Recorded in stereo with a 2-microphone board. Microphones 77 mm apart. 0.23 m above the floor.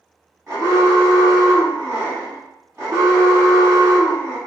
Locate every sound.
0.5 s an alarm: 30° right (ahead or behind), 1.5 m